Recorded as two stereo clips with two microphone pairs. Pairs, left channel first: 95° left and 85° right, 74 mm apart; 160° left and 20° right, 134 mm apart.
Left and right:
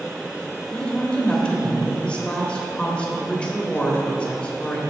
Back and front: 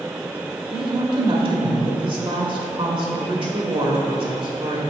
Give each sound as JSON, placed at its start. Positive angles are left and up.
{"t": 0.7, "sound": "a woman speaking", "azimuth_deg": 20, "distance_m": 1.8}